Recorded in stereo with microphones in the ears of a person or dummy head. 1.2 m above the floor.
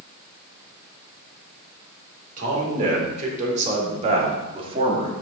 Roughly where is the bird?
I don't hear a bird.